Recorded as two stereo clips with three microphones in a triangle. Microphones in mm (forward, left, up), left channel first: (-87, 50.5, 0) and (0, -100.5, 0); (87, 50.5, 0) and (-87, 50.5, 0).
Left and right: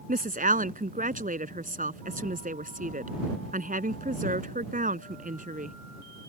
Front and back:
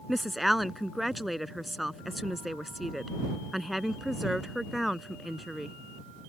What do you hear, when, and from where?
0.1 s a woman speaking: 90° right